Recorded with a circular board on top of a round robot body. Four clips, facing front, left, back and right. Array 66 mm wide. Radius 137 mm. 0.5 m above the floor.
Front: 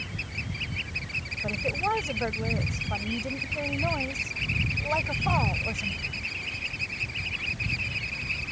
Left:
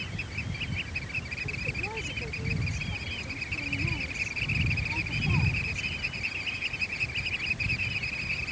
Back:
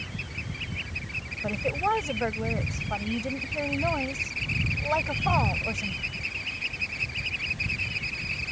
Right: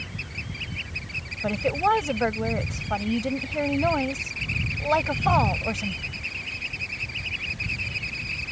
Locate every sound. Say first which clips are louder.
1.4 s a woman speaking: right 19 dB, back 2 dB; 100° right